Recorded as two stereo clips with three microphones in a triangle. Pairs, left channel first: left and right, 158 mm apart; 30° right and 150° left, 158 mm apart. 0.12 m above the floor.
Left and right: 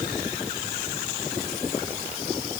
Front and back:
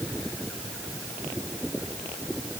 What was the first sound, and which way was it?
Only background noise.